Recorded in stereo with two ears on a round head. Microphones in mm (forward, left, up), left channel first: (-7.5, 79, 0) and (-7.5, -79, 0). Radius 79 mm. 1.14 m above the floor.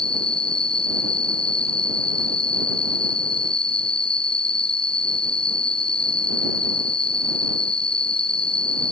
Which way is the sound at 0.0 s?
30° left (ahead or behind).